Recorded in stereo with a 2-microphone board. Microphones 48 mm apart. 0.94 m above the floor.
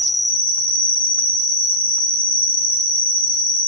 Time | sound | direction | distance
0.0 | an insect | 45° left (ahead or behind) | 0.7 m